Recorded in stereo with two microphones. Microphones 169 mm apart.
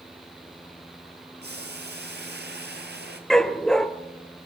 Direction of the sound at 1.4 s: 80° right.